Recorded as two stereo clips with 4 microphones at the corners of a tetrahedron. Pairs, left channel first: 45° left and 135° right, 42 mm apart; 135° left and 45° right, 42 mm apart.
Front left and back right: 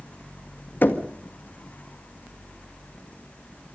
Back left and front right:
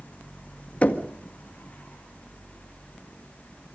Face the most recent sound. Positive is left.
turn(degrees=80)